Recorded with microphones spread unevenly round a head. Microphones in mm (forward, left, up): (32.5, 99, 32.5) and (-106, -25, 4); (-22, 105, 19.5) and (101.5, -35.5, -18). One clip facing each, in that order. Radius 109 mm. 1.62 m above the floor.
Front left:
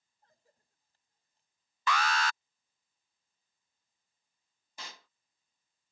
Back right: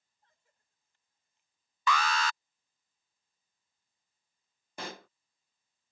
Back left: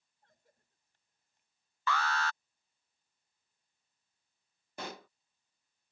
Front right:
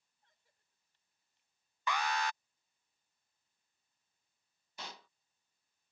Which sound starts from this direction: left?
A cough, at 0.2 s.